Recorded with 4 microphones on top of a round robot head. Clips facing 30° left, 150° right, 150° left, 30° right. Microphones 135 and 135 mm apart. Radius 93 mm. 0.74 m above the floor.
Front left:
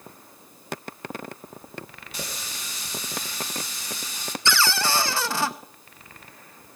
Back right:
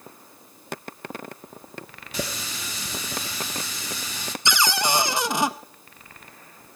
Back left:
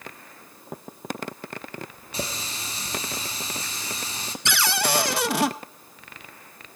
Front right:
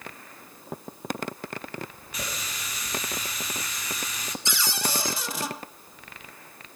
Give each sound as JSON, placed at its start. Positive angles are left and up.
{"t": 2.1, "sound": "a running tap", "azimuth_deg": -145, "distance_m": 1.2}
{"t": 4.5, "sound": "a cupboard door", "azimuth_deg": 140, "distance_m": 0.6}